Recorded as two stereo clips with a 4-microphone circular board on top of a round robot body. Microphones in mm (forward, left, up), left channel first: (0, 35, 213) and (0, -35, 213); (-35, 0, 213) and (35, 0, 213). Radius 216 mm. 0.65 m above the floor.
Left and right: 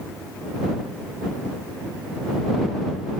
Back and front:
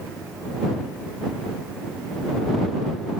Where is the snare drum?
No snare drum in this recording.